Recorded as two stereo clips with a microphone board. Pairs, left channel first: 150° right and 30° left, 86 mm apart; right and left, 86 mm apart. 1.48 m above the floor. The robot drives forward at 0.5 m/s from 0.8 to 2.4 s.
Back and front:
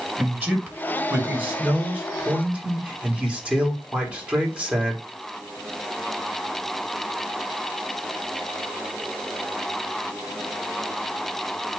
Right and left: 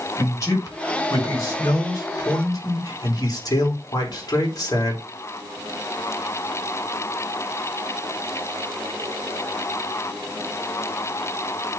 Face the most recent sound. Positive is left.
turn(degrees=-45)